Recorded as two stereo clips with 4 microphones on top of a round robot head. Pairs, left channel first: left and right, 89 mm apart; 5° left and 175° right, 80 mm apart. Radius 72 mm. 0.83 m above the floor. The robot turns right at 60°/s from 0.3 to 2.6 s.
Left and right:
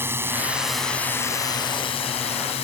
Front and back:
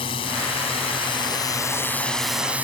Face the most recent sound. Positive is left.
turn(degrees=110)